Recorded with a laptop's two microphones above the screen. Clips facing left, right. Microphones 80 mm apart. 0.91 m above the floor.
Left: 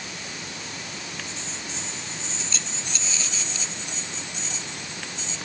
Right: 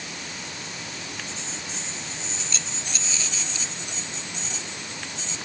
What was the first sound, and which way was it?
Only background noise.